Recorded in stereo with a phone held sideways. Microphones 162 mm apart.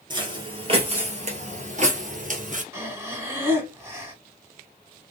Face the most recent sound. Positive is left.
turn(degrees=-15)  # may be behind; listen again after turning